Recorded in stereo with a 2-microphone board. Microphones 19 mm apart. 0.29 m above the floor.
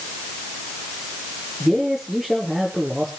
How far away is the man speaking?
About 5 m.